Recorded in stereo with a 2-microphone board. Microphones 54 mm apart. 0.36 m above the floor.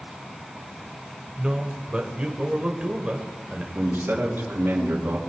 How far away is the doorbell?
I don't hear a doorbell.